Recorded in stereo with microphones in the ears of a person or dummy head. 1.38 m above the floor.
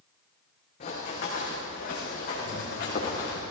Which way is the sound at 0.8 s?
45° left (ahead or behind).